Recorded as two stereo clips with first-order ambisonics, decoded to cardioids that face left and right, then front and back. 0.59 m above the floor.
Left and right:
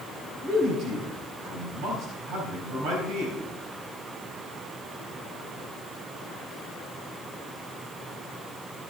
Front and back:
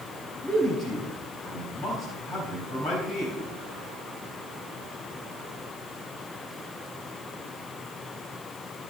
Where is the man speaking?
60° right, 4 m.